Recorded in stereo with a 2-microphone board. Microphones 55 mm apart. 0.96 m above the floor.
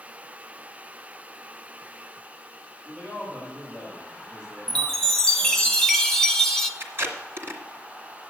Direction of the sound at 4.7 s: 10° left (ahead or behind).